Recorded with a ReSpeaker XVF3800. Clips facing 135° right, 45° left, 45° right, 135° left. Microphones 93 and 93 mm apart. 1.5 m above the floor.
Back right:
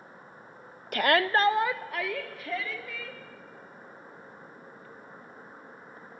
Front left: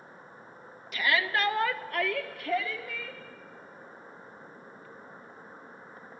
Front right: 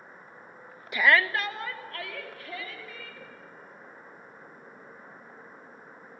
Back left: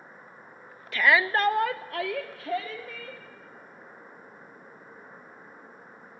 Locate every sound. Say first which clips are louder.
0.9 s a shout: back right 5 dB, back left 1 dB; 115° right, 0.6 m; by 3.2 s 130° left, 2.5 m